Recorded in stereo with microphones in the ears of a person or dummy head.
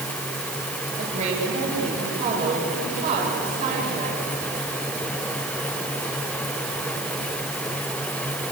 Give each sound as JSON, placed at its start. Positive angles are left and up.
{"t": 1.0, "sound": "a woman speaking", "side_deg": -50, "distance_m": 7.5}